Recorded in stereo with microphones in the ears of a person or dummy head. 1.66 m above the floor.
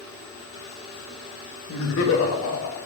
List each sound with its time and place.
1.7 s laughter: 70° left (ahead or behind), 2 m; by 2.8 s 75° left (ahead or behind), 3 m